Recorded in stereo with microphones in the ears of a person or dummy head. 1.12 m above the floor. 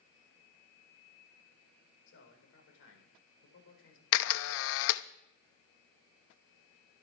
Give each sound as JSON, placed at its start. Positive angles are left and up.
{"t": 2.1, "sound": "a man speaking", "side_deg": 75, "distance_m": 4.0}
{"t": 4.1, "sound": "a camera shutter", "side_deg": 65, "distance_m": 0.6}